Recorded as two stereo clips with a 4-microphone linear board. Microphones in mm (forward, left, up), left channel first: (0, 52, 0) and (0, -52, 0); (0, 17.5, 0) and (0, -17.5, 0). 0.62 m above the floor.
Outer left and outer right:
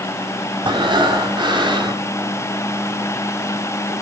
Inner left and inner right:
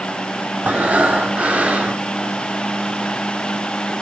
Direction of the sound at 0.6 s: 45° right (ahead or behind).